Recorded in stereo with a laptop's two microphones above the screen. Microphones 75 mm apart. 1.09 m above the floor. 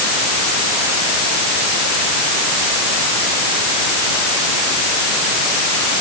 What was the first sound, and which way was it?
Only background noise.